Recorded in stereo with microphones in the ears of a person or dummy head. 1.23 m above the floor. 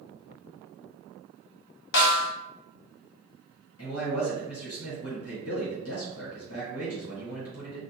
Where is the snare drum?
60° left (ahead or behind), 0.5 m.